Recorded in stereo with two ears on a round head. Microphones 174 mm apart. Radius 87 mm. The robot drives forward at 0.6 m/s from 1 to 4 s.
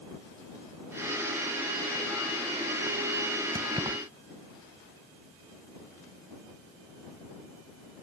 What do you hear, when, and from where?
3.5 s keys jangling: 25° right (ahead or behind)